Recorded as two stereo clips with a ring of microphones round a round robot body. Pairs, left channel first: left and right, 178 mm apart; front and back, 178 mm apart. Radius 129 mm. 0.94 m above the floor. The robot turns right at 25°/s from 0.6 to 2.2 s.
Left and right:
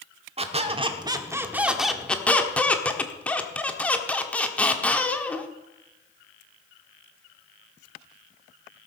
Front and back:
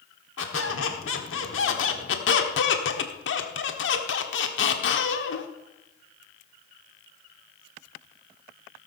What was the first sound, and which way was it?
A squeak, 35° right.